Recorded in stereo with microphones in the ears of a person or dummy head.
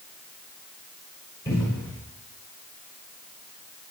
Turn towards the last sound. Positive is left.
turn(degrees=20)  # may be behind; listen again after turning